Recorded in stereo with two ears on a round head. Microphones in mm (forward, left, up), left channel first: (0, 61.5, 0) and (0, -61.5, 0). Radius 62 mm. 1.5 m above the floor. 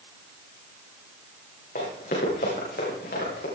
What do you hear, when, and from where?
1.8 s running footsteps: 65° left (ahead or behind), 9.5 m; by 3.5 s 80° left, 10 m